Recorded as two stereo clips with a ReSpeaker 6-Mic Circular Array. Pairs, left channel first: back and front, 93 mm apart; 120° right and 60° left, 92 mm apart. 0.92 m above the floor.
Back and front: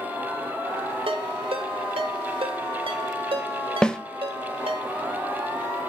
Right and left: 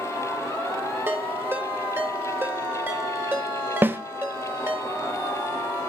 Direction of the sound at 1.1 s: 5° right.